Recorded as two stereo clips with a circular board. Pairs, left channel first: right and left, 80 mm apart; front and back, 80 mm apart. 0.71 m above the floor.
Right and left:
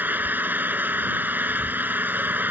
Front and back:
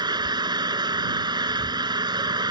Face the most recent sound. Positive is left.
turn(degrees=155)